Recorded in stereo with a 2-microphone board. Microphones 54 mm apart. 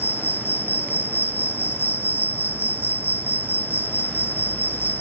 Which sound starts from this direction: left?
An insect, at 0.0 s.